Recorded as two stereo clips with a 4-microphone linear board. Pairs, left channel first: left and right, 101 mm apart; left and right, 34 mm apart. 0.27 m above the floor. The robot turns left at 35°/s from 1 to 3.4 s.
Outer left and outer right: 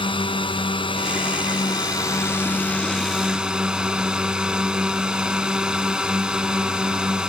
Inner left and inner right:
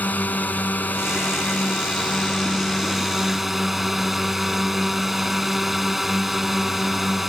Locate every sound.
0.0 s a drone: 75° left; by 7.3 s 10° right